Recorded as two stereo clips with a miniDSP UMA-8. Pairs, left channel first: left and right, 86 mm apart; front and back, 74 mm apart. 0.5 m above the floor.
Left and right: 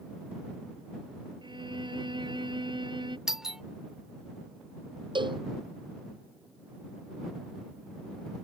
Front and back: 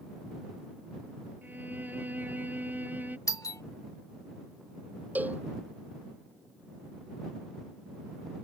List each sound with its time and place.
1.4 s a violin: 115° right
3.3 s a doorbell: 10° right
5.2 s a cowbell: 110° right